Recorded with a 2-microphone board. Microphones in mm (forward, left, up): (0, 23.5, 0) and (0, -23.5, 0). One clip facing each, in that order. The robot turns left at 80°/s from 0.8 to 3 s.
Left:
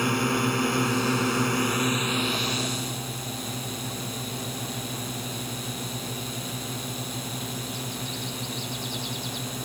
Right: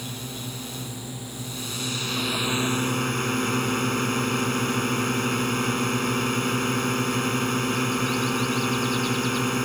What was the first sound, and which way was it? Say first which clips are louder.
A drone: left 12 dB; 120° left.